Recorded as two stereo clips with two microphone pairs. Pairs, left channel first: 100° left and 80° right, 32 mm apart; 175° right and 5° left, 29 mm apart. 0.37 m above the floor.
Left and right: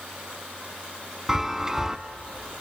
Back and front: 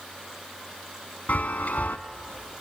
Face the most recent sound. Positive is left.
turn(degrees=-155)